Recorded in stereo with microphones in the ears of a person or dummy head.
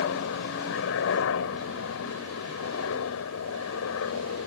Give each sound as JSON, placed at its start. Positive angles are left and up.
{"t": 0.0, "sound": "a helicopter", "side_deg": 70}